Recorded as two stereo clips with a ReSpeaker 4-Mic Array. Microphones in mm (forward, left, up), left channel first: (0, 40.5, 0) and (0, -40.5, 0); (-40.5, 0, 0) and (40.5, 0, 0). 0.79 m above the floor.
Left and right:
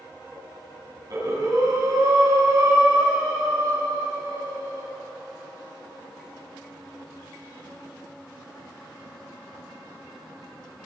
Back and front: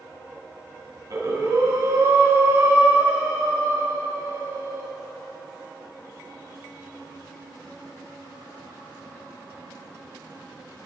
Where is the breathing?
45° right, 3.5 m.